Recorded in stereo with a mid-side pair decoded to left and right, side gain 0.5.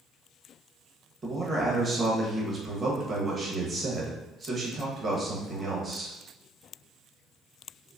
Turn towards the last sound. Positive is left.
turn(degrees=-35)